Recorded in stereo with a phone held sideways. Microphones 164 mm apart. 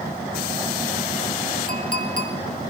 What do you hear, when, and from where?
1.7 s a clink: 55° right (ahead or behind), 2 m